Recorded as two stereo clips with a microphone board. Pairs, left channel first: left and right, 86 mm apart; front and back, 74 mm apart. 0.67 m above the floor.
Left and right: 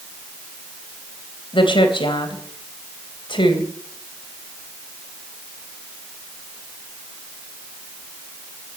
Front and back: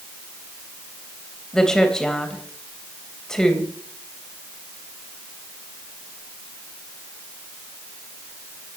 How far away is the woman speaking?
About 3 m.